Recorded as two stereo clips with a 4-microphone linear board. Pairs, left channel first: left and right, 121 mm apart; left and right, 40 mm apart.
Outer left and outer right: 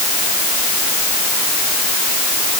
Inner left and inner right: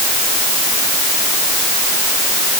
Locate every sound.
Only background noise.